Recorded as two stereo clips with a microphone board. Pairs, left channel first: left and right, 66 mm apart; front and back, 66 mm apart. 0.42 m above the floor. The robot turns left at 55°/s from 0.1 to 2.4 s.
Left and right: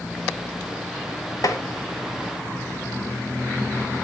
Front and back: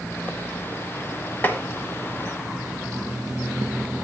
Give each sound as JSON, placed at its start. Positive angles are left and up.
{"t": 1.4, "sound": "tapping", "azimuth_deg": 65, "distance_m": 1.2}